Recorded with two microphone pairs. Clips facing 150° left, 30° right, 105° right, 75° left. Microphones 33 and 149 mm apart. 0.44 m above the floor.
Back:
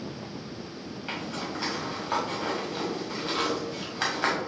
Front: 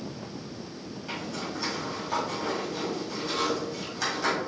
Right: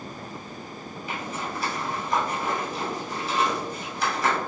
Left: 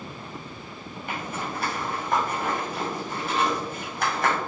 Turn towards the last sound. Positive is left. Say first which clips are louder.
# back 1 dB, left 1 dB
turn(degrees=105)